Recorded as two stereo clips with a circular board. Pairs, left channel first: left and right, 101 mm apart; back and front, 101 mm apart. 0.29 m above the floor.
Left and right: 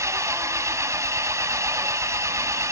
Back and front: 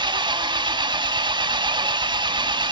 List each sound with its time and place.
0.0 s an engine running: 35° right, 0.9 m